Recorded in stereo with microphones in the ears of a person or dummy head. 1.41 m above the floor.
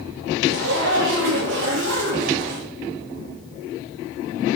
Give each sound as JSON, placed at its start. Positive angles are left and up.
{"t": 0.5, "sound": "a zipper", "side_deg": -70, "distance_m": 3.5}